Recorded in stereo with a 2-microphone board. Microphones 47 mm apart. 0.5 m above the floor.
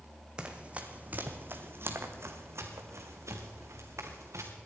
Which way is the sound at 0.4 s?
20° right (ahead or behind).